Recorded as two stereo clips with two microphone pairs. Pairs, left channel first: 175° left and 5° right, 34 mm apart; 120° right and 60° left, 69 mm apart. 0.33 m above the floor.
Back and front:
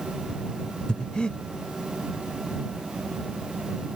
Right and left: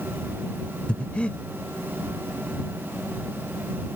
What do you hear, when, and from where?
0.9 s breathing: 170° right